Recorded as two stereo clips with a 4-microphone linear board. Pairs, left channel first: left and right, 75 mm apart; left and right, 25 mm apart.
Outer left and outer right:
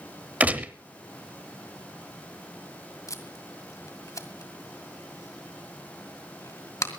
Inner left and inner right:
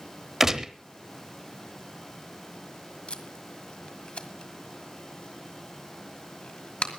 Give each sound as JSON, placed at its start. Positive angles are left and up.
{"t": 0.4, "sound": "a gunshot", "side_deg": -20, "distance_m": 1.0}
{"t": 3.1, "sound": "tape being pulled", "side_deg": 45, "distance_m": 1.8}